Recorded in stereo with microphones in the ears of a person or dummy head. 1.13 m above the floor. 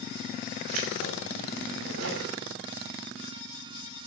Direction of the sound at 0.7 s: 75° right (ahead or behind).